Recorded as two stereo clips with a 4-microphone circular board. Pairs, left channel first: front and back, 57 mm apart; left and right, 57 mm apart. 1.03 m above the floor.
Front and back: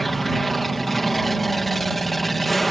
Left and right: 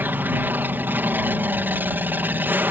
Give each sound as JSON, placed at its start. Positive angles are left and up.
{"t": 0.0, "sound": "an aircraft", "azimuth_deg": -85}